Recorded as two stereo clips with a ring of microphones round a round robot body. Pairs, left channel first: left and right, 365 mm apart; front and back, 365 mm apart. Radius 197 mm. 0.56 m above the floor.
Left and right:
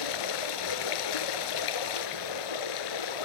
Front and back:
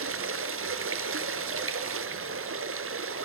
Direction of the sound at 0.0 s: 125° left.